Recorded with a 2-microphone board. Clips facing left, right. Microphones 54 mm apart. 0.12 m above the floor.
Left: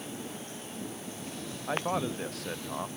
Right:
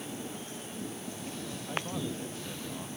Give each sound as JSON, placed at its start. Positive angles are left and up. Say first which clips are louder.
{"t": 1.7, "sound": "a man speaking", "louder": "left 6 dB", "side_deg": 80}